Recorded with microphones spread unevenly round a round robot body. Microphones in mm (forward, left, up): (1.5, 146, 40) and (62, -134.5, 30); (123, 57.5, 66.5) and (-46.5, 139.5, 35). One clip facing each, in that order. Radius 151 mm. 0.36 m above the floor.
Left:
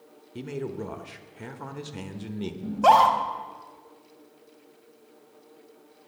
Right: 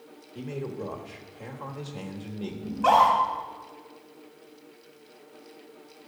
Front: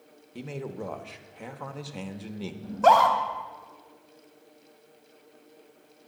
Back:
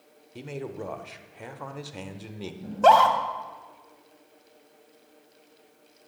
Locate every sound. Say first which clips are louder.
0.3 s a man speaking: left 1 dB, even; 80° left, 1.2 m
2.6 s a scream: left 2 dB, back 2 dB; 105° left, 2.5 m